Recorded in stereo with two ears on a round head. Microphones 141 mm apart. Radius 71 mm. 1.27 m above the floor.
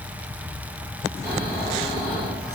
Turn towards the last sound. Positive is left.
turn(degrees=-25)  # may be behind; listen again after turning